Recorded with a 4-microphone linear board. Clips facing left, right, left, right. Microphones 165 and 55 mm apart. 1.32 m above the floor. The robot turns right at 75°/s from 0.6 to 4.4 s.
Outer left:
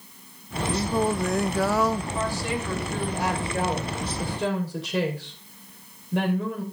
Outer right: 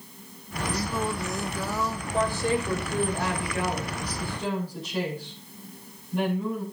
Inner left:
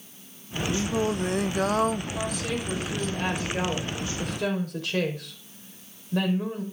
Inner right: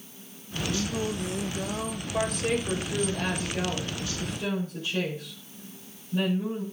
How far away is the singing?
About 0.5 m.